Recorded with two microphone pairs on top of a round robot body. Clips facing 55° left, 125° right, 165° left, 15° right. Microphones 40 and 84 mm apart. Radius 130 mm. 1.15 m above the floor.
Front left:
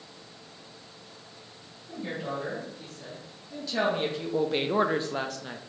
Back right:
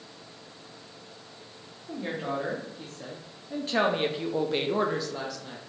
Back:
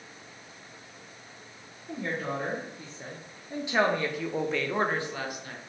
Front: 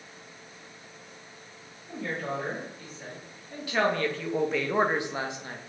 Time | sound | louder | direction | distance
1.9 | a woman speaking | back right 2 dB, back 1 dB | 140° right | 1.5 m